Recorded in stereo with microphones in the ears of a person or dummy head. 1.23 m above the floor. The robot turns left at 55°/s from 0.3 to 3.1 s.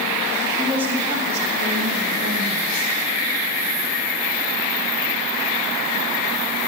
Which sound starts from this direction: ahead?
A woman speaking, at 0.6 s.